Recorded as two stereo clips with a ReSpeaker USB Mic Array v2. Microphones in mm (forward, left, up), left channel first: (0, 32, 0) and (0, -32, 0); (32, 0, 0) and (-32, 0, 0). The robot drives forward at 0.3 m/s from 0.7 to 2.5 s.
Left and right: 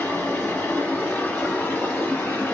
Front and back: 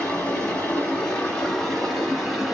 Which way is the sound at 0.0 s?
55° left.